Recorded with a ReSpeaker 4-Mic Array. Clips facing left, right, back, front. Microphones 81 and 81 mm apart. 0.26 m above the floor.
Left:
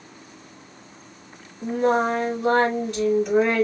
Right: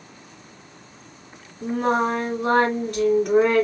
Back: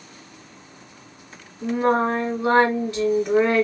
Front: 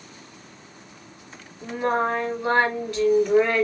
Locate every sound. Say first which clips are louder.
1.6 s singing: left 1 dB, back 4 dB; 115° right, 2 m